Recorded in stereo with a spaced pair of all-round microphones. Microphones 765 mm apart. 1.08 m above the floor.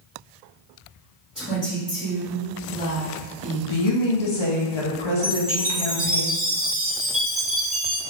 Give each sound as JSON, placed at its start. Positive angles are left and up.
{"t": 1.4, "sound": "a woman speaking", "side_deg": 0, "distance_m": 1.6}
{"t": 3.7, "sound": "a woman speaking", "side_deg": 40, "distance_m": 0.7}
{"t": 5.2, "sound": "a chime", "side_deg": -20, "distance_m": 0.6}